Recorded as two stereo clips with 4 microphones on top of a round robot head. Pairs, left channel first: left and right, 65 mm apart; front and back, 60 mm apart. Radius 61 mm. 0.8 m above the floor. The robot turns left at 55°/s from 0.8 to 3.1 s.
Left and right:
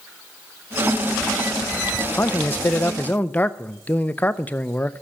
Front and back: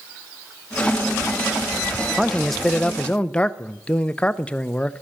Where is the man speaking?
105° left, 0.6 m; by 5.0 s 55° left, 0.6 m.